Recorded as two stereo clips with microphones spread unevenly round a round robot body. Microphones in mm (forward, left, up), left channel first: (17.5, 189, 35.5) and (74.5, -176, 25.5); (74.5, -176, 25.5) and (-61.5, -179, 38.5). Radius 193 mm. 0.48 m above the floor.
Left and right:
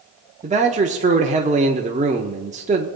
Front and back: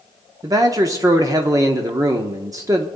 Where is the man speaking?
130° right, 0.8 m.